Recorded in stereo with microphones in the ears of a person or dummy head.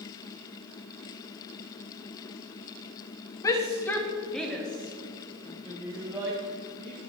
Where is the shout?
25° left (ahead or behind), 1.3 m; by 7.0 s 15° right (ahead or behind), 2.5 m.